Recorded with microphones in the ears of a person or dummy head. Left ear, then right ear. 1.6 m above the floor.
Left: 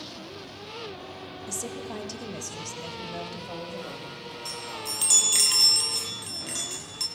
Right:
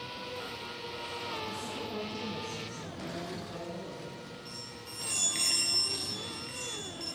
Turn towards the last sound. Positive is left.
turn(degrees=50)  # may be behind; listen again after turning